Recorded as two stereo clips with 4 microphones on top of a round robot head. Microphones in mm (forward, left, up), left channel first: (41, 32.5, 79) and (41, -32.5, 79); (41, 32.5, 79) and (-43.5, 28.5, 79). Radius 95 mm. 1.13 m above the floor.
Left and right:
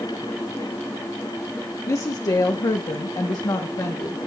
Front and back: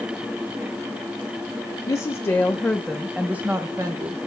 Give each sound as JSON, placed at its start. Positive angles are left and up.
{"t": 1.9, "sound": "a woman speaking", "azimuth_deg": 55, "distance_m": 1.1}